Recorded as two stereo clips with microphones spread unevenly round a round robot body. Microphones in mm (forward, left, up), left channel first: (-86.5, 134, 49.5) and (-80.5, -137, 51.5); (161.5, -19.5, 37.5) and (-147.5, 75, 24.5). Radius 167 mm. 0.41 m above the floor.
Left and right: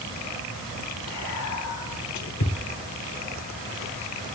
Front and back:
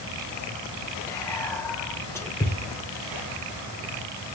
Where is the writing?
No writing in this recording.